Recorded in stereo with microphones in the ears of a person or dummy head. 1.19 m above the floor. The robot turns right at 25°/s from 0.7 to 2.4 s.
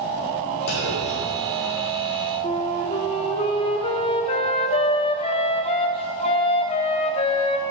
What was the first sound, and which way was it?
A clunk, 80° left.